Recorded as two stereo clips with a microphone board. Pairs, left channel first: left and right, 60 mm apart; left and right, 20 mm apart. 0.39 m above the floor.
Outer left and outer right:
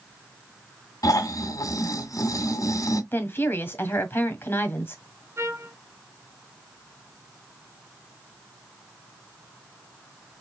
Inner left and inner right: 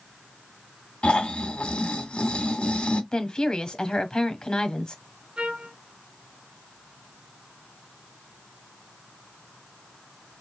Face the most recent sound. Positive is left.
turn(degrees=-50)  # may be behind; listen again after turning